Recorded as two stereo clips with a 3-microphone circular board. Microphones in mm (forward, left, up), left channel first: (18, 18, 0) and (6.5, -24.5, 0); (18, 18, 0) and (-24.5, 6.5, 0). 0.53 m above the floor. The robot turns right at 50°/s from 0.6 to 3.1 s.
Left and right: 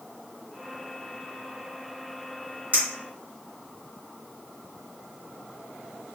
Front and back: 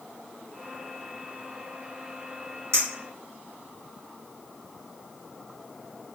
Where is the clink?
150° right, 1.5 m; by 2.9 s 145° right, 1.5 m.